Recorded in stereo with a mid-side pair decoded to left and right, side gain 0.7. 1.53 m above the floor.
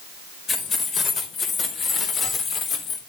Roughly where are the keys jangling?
Ahead left.